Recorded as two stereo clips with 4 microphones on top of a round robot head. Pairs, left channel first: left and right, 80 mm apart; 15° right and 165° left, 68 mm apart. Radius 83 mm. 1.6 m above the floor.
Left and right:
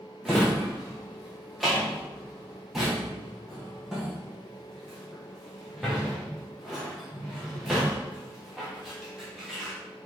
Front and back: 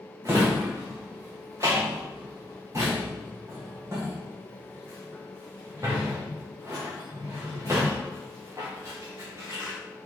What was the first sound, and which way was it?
A drawer, 175° right.